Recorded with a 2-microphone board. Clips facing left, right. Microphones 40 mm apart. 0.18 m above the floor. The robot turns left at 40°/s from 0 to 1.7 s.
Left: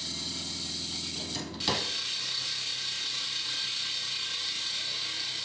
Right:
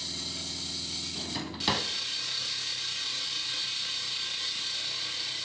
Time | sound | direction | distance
1.1 | a drawer | 20° right (ahead or behind) | 0.8 m